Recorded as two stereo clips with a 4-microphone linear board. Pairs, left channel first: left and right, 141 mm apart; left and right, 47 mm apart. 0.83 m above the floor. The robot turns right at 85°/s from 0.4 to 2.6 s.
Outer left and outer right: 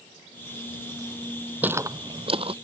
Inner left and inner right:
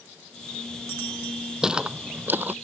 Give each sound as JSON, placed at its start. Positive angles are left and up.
{"t": 1.6, "sound": "footsteps", "side_deg": -10}